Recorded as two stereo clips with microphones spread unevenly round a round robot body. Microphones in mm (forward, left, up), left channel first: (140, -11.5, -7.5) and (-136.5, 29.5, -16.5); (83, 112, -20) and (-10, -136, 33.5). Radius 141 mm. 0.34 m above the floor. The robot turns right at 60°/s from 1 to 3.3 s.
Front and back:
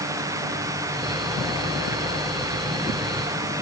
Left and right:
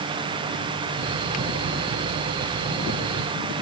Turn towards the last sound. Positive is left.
No sound to turn to.